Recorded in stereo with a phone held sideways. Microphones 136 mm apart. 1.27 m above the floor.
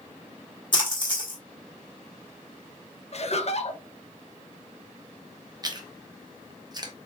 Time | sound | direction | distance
0.7 | a splash | 35° left (ahead or behind) | 1.6 m
3.1 | laughter | 50° left (ahead or behind) | 0.7 m
5.6 | chewing | 30° right (ahead or behind) | 0.7 m